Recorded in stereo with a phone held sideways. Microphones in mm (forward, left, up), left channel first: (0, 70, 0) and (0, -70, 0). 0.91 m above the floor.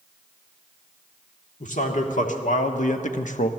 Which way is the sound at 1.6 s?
65° left (ahead or behind).